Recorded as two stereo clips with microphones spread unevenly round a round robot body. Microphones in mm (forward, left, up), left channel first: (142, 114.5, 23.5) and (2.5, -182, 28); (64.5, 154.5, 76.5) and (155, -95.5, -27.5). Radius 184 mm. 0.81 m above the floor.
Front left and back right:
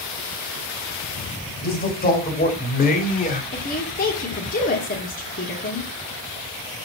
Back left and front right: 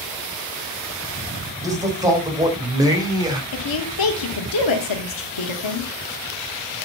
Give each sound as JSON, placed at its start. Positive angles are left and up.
{"t": 1.6, "sound": "a man speaking", "azimuth_deg": 5, "distance_m": 4.5}
{"t": 3.5, "sound": "a woman speaking", "azimuth_deg": 130, "distance_m": 2.5}